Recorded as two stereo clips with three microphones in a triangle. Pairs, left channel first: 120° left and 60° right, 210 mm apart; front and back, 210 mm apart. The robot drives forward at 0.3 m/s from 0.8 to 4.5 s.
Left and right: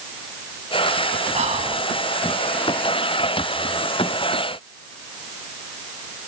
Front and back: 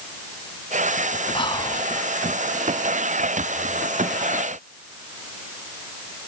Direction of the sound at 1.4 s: 45° right.